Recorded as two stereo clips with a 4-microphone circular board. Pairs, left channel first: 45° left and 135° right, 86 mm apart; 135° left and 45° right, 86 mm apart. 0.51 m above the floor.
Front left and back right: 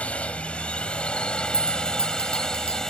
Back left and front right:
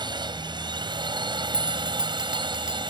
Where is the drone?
30° right; by 2.9 s 40° right.